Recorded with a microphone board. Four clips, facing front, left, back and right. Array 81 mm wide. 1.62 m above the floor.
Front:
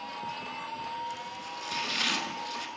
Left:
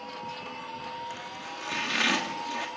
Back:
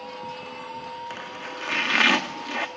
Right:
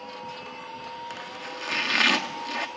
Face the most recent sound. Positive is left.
turn(degrees=-165)